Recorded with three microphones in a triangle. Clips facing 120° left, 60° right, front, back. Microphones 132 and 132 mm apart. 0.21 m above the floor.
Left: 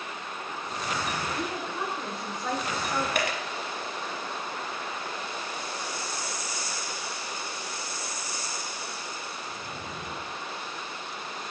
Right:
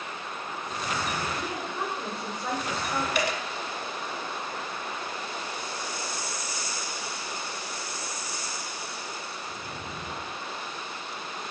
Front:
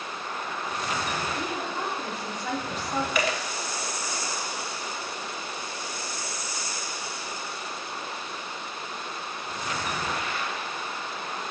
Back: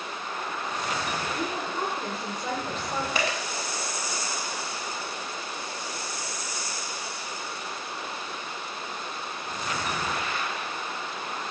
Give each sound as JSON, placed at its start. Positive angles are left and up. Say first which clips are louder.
{"t": 1.4, "sound": "a woman speaking", "louder": "even, back 1 dB", "azimuth_deg": -155, "distance_m": 3.5}
{"t": 3.1, "sound": "a dropped coin", "louder": "right 1 dB, front 2 dB", "azimuth_deg": 130, "distance_m": 0.8}